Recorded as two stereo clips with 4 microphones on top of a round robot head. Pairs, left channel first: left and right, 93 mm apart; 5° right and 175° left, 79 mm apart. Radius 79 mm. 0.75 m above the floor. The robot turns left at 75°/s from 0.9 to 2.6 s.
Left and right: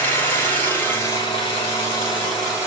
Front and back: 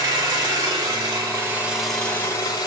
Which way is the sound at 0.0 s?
155° left.